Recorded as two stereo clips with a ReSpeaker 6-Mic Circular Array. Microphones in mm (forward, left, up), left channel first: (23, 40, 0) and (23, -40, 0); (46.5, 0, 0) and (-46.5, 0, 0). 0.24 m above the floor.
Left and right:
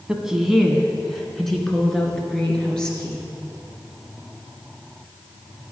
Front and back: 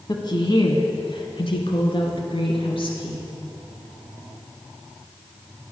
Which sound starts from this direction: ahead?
A woman speaking, at 0.1 s.